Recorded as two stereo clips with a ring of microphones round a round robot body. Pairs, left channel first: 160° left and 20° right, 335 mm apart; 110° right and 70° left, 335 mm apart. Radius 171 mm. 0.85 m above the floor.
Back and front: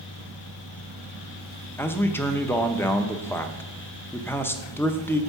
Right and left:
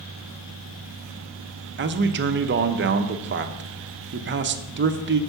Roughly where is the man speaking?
Left.